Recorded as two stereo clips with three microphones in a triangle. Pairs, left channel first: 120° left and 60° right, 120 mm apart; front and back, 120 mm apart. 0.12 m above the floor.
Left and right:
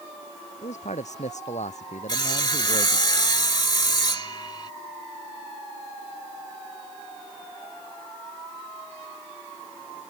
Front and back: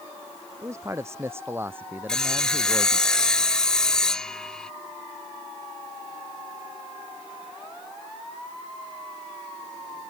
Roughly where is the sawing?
Left.